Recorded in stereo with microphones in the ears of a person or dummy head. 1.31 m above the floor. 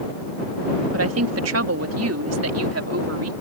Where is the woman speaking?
70° right (ahead or behind).